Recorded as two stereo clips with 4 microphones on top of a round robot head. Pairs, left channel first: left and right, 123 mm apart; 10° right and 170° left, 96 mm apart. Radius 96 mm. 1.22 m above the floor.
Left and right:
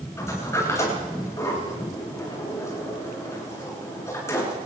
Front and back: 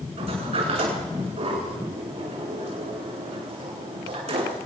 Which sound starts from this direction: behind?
A sliding door, at 0.2 s.